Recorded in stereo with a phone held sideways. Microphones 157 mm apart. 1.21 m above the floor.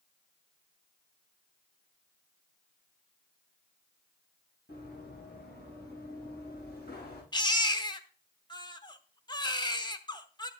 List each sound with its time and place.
4.7 s running footsteps: 80° left, 8 m
7.3 s a baby crying: 25° left (ahead or behind), 0.9 m